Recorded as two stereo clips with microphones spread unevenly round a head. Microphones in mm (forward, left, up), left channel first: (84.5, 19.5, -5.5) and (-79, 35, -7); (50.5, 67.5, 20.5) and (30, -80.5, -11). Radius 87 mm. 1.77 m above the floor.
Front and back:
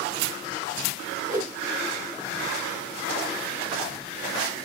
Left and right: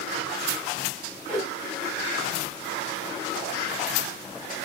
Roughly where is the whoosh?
Left.